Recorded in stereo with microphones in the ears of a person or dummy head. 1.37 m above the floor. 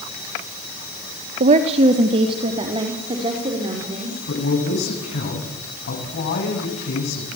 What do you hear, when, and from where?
1.4 s a woman speaking: 40° right (ahead or behind), 1.2 m; by 4.2 s 25° right (ahead or behind), 5 m
4.3 s a man speaking: 55° left (ahead or behind), 9 m